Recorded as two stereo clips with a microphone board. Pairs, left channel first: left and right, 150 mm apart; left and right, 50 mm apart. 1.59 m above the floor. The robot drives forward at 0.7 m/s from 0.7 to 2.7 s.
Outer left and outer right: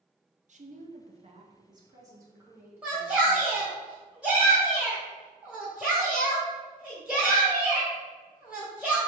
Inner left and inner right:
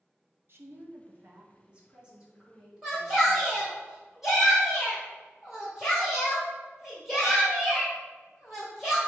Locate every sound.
0.5 s a woman speaking: 55° right (ahead or behind), 0.5 m; by 3.6 s 15° right (ahead or behind), 1.5 m
2.8 s a shout: 10° right (ahead or behind), 0.8 m